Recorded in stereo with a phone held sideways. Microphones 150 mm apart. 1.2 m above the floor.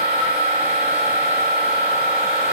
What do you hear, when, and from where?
0.0 s a machine running: 40° right (ahead or behind), 1.3 m